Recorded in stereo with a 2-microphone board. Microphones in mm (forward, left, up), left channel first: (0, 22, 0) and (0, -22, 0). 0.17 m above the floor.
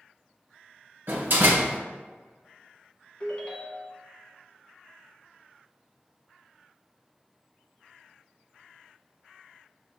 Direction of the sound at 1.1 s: 55° right (ahead or behind).